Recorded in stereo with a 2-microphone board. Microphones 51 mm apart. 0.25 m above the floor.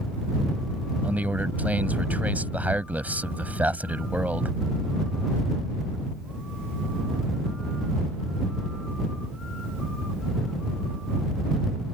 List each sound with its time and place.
1.0 s a man speaking: 30° right (ahead or behind)